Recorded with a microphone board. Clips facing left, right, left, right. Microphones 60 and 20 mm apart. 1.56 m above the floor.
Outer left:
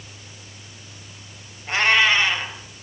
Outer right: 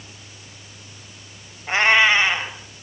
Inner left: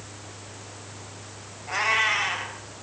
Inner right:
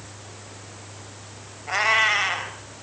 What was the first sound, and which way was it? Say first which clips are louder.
A cat meowing: outer right 2 dB, inner right 3 dB; 25° right (ahead or behind).